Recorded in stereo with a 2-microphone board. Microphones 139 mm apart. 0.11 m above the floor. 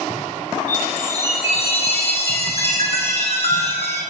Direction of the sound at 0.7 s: 50° left (ahead or behind).